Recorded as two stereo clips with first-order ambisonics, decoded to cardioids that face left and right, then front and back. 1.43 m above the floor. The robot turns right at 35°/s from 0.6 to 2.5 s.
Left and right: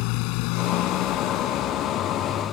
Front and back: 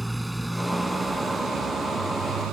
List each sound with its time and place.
0.0 s a motorcycle: 95° left; by 2.5 s 160° left